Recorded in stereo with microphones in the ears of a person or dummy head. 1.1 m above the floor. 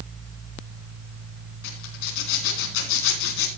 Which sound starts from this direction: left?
A zipper, at 1.6 s.